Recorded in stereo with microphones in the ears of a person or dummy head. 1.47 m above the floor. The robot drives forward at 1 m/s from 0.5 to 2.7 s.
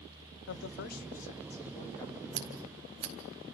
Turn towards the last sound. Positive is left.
turn(degrees=-30)  # may be behind; listen again after turning